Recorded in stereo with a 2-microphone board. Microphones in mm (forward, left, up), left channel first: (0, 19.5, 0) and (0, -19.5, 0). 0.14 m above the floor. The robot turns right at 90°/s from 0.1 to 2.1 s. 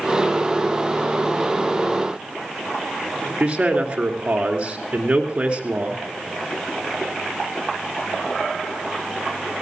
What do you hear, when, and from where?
3.4 s a man speaking: 30° right (ahead or behind), 2 m